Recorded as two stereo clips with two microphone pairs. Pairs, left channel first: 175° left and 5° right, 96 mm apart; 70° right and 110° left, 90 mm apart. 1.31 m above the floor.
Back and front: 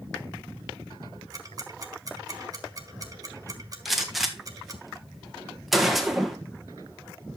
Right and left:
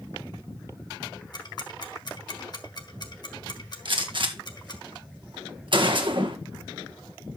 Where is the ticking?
50° right, 1.6 m.